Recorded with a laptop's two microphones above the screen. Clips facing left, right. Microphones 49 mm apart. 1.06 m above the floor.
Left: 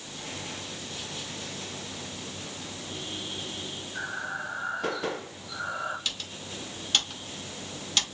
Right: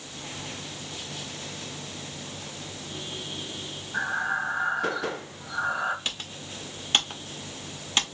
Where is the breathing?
65° right (ahead or behind), 2.5 m.